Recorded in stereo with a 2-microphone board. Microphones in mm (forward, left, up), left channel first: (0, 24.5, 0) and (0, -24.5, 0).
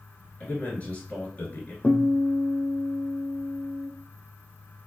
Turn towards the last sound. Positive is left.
turn(degrees=20)  # may be behind; listen again after turning